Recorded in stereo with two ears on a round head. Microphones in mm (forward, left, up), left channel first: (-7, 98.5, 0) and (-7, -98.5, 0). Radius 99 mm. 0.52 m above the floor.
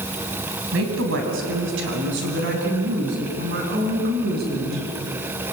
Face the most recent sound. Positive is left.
turn(degrees=-45)  # may be behind; listen again after turning